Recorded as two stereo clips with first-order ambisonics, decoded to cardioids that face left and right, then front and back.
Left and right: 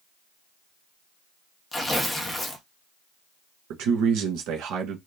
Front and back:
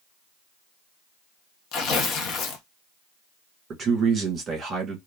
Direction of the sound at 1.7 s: 5° left.